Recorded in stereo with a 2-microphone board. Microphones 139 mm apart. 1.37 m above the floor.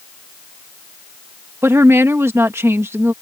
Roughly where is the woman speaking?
Centre.